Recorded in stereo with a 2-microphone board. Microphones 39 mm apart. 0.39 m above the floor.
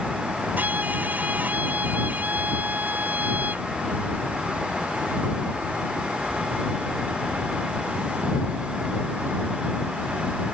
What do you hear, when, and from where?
0.6 s a violin: 50° right (ahead or behind)